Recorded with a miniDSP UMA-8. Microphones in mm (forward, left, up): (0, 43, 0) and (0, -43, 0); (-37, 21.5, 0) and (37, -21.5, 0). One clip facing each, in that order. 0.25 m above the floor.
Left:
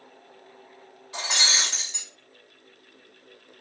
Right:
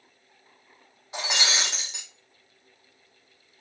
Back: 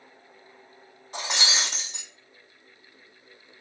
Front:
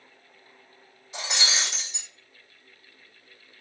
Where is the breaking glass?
160° right, 2 m.